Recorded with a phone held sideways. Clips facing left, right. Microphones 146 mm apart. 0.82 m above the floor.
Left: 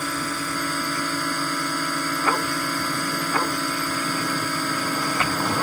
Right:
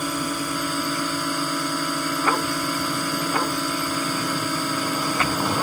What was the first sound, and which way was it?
A drone, 15° right (ahead or behind).